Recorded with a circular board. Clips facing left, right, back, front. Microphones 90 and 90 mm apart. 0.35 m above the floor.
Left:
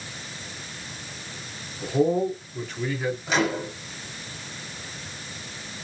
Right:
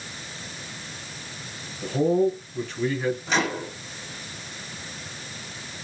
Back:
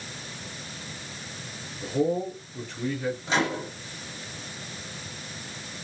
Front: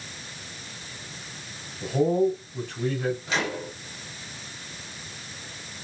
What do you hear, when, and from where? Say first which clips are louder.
1.8 s a man speaking: right 1 dB, front 4 dB; 10° left, 2 m
3.3 s a microwave: left 1 dB, back 2 dB; 165° left, 1.3 m